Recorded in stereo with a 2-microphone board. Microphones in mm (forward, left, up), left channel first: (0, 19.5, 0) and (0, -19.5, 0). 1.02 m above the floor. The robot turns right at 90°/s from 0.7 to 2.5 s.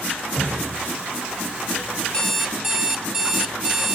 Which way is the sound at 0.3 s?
55° left (ahead or behind).